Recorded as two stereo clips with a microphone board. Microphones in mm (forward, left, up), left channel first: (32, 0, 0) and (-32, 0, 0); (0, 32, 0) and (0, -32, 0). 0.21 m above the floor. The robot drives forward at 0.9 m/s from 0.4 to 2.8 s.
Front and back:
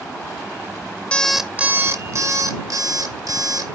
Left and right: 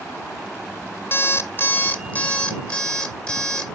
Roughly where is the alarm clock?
Ahead left.